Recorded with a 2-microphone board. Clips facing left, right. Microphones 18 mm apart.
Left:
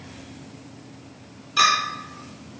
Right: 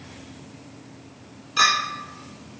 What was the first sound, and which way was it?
A clink, 10° left (ahead or behind).